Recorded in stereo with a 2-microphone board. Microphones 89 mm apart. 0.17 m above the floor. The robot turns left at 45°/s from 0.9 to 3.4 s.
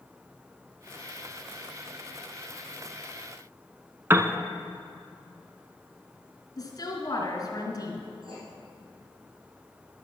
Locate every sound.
4.1 s a piano: 25° right (ahead or behind), 0.6 m
6.6 s a woman speaking: 45° left (ahead or behind), 2 m
8.2 s writing: 70° right (ahead or behind), 3.5 m